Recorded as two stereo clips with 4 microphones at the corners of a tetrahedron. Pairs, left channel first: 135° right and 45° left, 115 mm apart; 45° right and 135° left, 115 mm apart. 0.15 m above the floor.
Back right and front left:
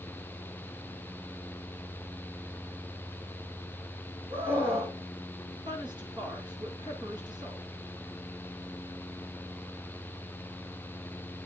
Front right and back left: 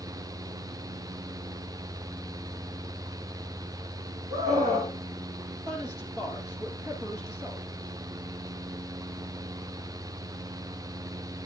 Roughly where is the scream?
Left.